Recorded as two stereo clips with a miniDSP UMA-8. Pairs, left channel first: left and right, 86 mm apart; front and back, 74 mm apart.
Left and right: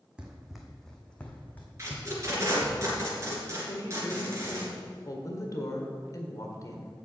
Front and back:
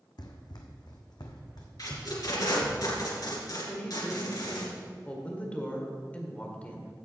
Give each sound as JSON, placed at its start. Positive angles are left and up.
{"t": 0.2, "sound": "running footsteps", "azimuth_deg": -10, "distance_m": 1.2}
{"t": 1.8, "sound": "tape being pulled", "azimuth_deg": -35, "distance_m": 2.5}
{"t": 3.6, "sound": "a woman speaking", "azimuth_deg": 65, "distance_m": 1.6}